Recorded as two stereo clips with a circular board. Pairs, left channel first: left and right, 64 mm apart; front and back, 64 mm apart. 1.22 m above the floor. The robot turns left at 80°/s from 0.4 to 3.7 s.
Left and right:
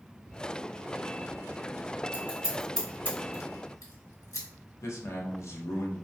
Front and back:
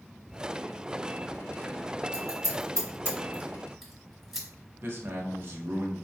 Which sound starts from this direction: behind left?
A man speaking, at 4.8 s.